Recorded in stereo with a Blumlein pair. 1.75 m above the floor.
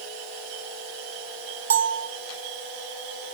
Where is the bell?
60° right, 0.7 m.